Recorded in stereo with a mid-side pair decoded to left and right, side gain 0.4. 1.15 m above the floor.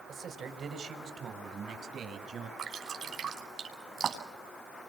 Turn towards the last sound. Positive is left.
turn(degrees=-60)